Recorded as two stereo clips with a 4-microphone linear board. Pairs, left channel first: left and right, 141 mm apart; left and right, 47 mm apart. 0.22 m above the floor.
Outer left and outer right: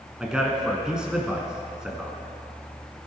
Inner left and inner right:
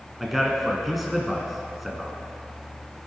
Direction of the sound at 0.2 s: 5° right (ahead or behind).